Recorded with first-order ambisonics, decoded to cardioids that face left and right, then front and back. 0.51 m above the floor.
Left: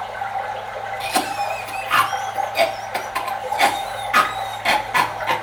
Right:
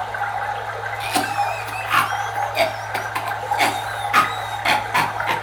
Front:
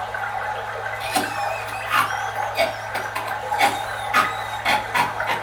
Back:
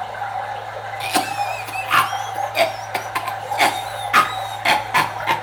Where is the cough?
170° right, 0.8 m.